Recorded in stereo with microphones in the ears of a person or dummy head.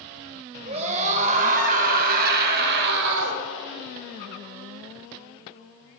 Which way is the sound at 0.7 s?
35° right (ahead or behind).